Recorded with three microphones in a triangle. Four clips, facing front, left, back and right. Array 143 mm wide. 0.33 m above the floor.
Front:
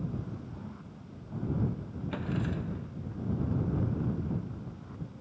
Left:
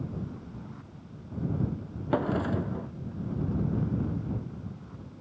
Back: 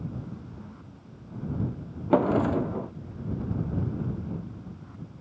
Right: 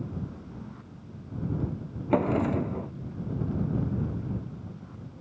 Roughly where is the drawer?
Behind.